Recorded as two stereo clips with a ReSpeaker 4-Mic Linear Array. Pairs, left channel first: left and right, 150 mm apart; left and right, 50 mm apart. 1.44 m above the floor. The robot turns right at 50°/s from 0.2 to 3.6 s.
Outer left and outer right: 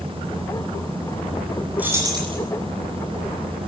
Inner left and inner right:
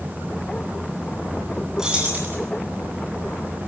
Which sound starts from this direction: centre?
Keys jangling, at 1.8 s.